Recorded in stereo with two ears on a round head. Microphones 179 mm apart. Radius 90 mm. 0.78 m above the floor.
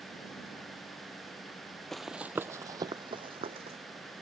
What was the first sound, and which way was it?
Running footsteps, 5° left (ahead or behind).